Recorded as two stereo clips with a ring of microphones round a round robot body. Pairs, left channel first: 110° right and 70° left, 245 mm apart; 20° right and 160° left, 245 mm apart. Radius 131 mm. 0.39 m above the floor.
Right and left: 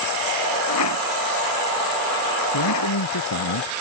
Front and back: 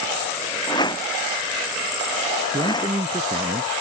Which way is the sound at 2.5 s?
125° right.